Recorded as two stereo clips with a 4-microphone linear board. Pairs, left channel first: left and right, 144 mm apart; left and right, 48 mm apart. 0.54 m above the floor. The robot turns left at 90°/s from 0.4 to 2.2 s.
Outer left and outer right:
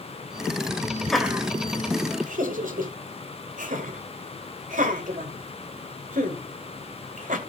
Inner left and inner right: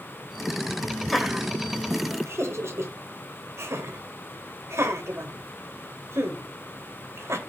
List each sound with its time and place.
1.1 s laughter: 5° left (ahead or behind), 2.5 m; by 7.4 s 65° right (ahead or behind), 2.5 m